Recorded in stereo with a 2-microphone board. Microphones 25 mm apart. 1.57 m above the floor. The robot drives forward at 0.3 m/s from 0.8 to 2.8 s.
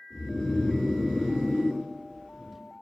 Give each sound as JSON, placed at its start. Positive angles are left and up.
{"t": 0.1, "sound": "snoring", "side_deg": 35, "distance_m": 2.0}